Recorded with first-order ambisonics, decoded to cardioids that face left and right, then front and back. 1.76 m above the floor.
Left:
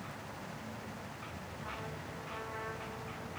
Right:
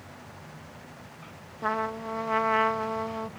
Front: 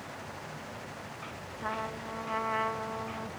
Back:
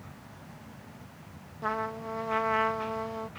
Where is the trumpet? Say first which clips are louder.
Right 17 dB, back 4 dB; 105° right, 0.6 m.